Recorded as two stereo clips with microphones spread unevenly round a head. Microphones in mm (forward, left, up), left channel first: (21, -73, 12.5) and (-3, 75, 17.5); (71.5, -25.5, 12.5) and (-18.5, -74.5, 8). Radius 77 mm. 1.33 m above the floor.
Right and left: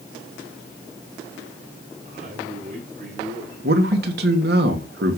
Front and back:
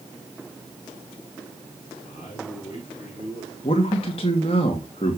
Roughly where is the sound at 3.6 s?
Left.